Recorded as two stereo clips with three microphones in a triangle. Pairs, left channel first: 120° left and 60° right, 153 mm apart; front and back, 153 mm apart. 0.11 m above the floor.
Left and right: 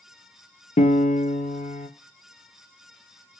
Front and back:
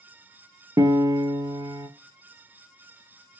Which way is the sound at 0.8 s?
120° left.